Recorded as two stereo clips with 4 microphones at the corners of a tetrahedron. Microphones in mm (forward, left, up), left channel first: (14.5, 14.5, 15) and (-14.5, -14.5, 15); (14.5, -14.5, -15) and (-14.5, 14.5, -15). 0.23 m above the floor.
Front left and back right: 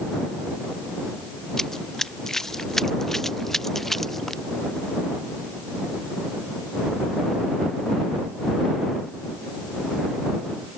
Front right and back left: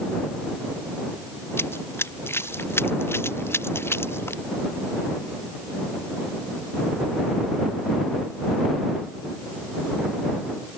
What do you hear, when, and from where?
1.6 s running footsteps: 35° right; by 4.4 s 40° right